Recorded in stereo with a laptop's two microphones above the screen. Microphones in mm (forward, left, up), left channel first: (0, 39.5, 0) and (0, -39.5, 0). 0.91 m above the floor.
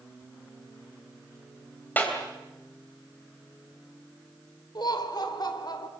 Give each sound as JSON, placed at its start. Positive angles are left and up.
{"t": 2.0, "sound": "a clap", "side_deg": 20, "distance_m": 3.0}
{"t": 4.8, "sound": "laughter", "side_deg": 60, "distance_m": 2.5}